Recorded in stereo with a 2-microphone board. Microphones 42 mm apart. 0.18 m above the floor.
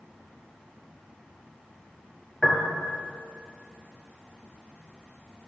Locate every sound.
2.4 s a piano: 5° left (ahead or behind), 1.8 m